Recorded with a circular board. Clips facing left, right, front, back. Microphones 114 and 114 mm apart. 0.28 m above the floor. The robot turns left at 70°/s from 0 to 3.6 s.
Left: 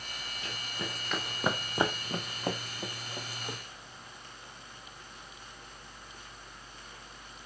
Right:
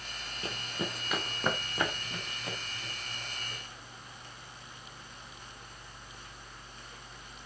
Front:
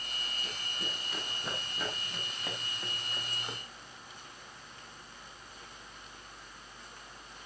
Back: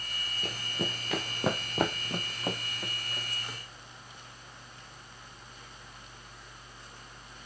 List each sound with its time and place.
0.4 s running footsteps: 145° right, 2.5 m; by 3.6 s 65° left, 3 m